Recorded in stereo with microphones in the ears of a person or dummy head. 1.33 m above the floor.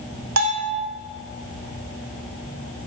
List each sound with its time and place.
0.4 s a bell: 70° right (ahead or behind), 2 m